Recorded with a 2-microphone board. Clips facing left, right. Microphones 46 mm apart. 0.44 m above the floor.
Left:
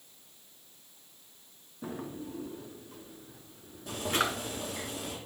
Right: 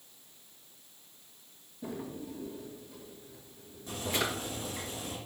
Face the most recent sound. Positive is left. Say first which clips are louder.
# left 3 dB
turn(degrees=90)